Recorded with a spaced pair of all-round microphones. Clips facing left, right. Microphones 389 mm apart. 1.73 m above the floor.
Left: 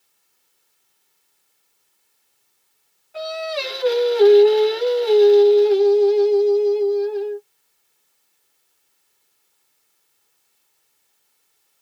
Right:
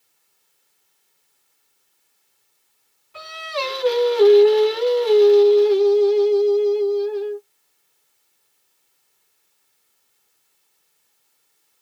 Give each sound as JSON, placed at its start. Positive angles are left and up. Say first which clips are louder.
{"t": 3.1, "sound": "singing", "louder": "left 3 dB", "side_deg": -10, "distance_m": 1.5}